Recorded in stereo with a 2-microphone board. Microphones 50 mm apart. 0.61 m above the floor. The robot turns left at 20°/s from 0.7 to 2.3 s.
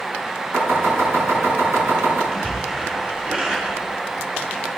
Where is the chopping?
60° right (ahead or behind), 7 m; by 2.2 s 80° right, 7 m.